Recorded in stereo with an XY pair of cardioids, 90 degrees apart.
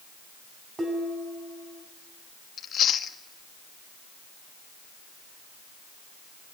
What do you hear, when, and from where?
0.8 s dishes clattering: 30° right, 6.5 m
2.6 s chewing: 65° left, 1.6 m